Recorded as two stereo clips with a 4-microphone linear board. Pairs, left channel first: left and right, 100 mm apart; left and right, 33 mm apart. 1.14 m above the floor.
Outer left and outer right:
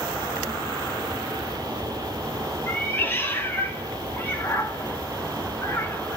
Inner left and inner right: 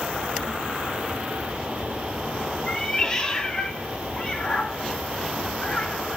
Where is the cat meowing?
20° left (ahead or behind), 0.6 m.